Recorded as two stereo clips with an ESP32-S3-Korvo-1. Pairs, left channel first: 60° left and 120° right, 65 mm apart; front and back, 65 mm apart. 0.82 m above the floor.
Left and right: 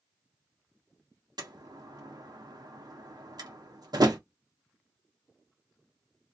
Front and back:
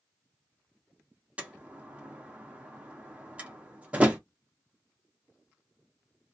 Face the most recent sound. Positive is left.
turn(degrees=-110)